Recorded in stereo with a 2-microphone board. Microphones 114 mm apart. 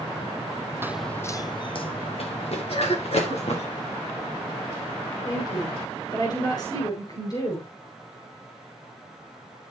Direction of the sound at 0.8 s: 20° right (ahead or behind).